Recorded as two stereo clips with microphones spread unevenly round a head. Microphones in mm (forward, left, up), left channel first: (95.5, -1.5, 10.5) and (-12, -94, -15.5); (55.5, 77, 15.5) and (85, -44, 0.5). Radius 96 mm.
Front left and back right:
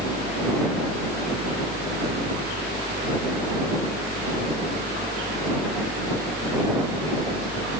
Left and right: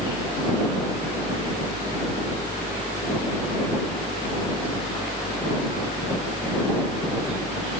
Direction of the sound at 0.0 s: 30° right.